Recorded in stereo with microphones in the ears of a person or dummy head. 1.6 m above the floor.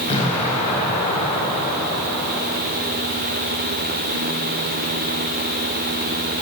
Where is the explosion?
35° left (ahead or behind), 4.5 m.